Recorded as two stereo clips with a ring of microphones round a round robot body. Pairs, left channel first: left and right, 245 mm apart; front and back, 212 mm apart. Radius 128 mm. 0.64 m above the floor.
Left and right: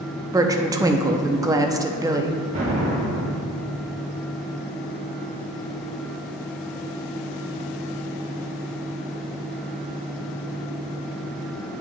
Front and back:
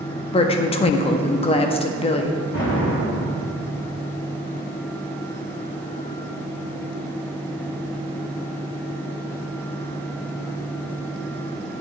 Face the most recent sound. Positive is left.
turn(degrees=-30)